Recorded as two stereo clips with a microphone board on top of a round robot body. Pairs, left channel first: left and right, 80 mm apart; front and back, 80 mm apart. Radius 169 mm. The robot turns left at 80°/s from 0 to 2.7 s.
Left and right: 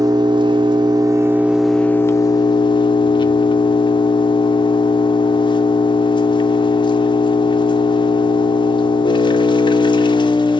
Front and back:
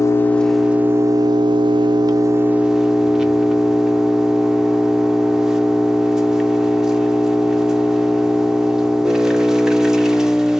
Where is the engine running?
50° right, 0.7 m; by 10.6 s 95° left, 0.7 m.